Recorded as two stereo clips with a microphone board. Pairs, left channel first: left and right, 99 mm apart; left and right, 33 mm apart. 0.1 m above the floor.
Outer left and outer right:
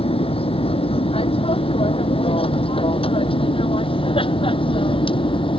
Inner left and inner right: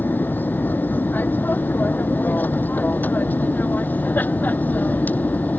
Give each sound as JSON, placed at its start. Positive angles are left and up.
{"t": 0.0, "sound": "an aircraft", "side_deg": 70}